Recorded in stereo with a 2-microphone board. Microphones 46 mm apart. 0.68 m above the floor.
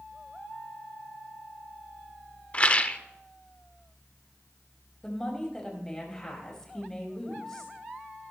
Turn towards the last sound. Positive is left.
turn(degrees=15)  # may be behind; listen again after turning